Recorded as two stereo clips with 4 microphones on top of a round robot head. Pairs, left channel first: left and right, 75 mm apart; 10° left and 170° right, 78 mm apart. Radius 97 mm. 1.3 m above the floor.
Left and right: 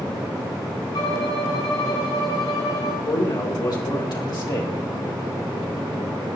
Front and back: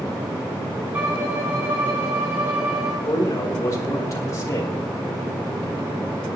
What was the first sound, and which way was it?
A violin, 120° left.